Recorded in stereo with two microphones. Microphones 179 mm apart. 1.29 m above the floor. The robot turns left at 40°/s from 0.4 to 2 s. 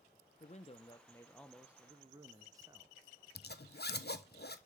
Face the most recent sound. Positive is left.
turn(degrees=65)  # may be behind; listen again after turning